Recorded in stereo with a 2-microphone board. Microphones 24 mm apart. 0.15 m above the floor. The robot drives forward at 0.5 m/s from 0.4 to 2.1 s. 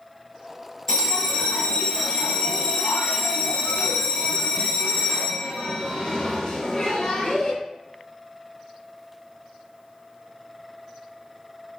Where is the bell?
25° left (ahead or behind), 0.9 m; by 7.5 s 35° left (ahead or behind), 0.7 m.